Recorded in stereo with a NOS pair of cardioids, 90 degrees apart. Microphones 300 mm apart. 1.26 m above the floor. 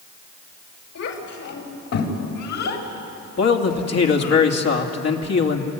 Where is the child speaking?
60° left, 5 m; by 4.4 s 75° left, 6 m.